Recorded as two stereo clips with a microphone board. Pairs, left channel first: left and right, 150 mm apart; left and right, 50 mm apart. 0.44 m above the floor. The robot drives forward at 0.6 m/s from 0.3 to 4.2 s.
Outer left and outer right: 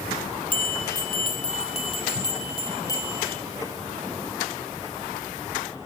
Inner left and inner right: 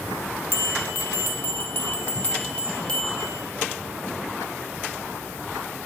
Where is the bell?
65° left (ahead or behind), 0.6 m; by 3.4 s 20° left (ahead or behind), 1.6 m.